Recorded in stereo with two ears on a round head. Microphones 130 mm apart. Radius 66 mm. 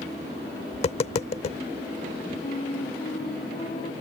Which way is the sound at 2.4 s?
40° left (ahead or behind).